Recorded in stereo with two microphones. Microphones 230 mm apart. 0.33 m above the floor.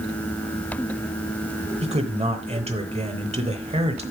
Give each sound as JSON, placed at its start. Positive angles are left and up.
{"t": 1.8, "sound": "a man speaking", "side_deg": -25, "distance_m": 1.0}